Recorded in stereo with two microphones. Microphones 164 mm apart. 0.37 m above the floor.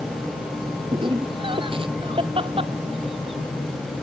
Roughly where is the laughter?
Right.